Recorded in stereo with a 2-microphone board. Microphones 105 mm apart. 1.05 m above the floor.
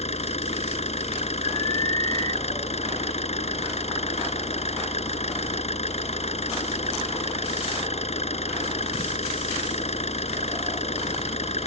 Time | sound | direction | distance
0.0 | an engine running | 75° left (ahead or behind) | ?
1.4 | an alarm | 45° left (ahead or behind) | ?